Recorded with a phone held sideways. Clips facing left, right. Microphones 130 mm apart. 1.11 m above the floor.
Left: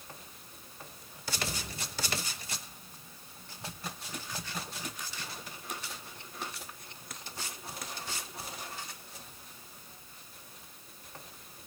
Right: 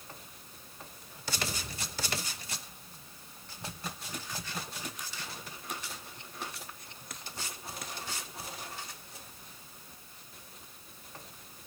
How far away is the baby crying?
I don't hear a baby crying.